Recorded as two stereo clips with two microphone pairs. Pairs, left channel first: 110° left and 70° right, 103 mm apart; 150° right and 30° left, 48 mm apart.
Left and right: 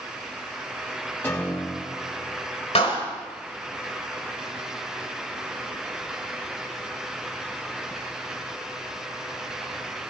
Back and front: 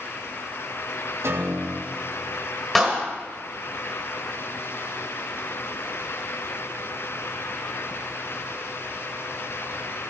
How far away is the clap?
About 4.5 m.